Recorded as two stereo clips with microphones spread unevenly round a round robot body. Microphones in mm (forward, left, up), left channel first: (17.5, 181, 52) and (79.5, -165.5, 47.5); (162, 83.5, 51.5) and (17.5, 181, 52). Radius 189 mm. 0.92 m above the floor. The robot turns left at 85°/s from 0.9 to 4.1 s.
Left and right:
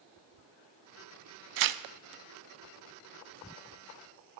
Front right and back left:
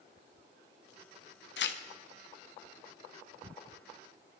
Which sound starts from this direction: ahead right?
Tearing paper, at 1.6 s.